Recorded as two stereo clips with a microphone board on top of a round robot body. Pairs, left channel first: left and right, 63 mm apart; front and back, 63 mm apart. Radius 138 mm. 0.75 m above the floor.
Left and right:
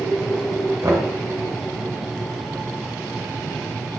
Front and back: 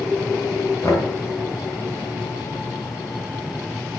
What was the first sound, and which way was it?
Knocking, 50° right.